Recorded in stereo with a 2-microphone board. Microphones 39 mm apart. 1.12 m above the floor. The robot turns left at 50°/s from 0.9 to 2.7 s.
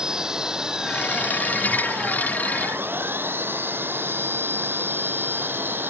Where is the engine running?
20° right; by 5.9 s 110° right.